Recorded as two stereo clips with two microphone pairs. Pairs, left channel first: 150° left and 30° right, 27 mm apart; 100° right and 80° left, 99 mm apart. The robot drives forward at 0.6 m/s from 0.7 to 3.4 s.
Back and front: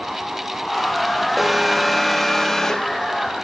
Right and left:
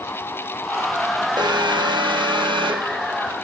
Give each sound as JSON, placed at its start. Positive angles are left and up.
{"t": 1.4, "sound": "an alarm", "azimuth_deg": 55, "distance_m": 2.0}